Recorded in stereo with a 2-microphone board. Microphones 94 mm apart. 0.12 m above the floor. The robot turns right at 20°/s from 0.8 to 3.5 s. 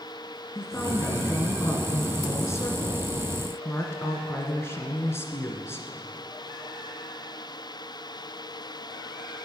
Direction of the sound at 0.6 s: 60° left.